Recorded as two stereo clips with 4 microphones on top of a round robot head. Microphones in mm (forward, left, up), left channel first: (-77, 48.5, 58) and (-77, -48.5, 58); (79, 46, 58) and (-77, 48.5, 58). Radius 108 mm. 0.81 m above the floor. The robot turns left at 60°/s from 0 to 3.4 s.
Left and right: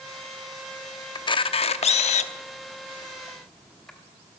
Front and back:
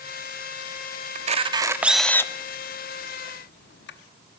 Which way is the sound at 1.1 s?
140° left.